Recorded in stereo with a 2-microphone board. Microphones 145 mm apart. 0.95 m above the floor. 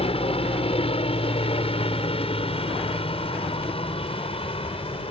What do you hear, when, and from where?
0.0 s a helicopter: 40° left (ahead or behind)